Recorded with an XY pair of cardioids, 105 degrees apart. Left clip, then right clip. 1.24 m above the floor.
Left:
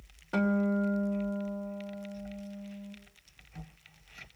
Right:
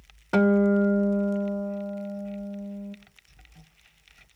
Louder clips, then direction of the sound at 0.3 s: Right 9 dB; 55° right.